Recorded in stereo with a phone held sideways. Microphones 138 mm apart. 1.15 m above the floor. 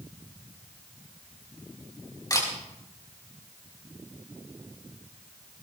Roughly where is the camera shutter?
Left.